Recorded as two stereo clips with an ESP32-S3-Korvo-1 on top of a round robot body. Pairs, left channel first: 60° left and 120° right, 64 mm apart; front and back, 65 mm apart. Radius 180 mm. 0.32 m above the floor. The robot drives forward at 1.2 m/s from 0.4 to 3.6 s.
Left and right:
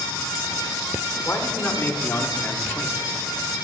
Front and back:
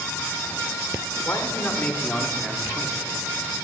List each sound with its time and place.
1.2 s a man speaking: 30° left, 2 m; by 3.3 s 140° left, 1.9 m